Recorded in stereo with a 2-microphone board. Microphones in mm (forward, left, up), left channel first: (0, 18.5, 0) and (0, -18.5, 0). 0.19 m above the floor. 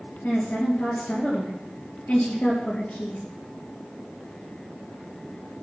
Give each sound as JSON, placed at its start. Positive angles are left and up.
{"t": 0.2, "sound": "a woman speaking", "side_deg": 55, "distance_m": 4.0}